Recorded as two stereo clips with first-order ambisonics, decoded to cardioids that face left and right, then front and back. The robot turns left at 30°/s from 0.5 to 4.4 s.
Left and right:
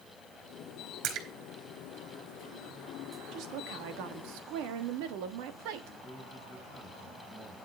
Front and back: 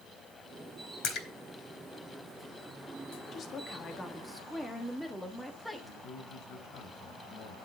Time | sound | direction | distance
1.0 | a splash | 40° right | 2.5 m
3.3 | a woman speaking | 55° right | 1.5 m
5.8 | a man speaking | 20° left | 4 m